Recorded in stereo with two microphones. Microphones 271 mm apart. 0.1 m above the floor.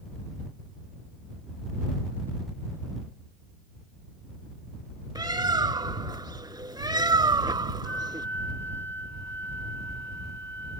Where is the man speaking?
No man speaking in this recording.